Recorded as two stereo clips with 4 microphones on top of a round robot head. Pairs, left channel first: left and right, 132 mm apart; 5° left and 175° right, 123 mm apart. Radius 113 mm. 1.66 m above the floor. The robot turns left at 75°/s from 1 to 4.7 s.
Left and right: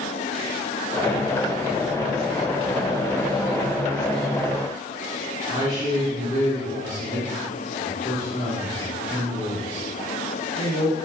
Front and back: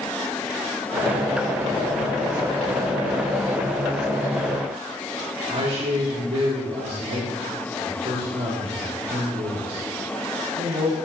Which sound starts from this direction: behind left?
A man speaking, at 5.5 s.